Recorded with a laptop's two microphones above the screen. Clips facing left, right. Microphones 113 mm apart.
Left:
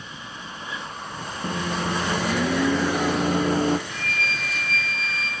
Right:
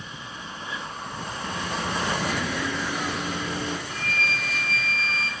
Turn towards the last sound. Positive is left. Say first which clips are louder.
# even
turn(degrees=-40)  # may be behind; listen again after turning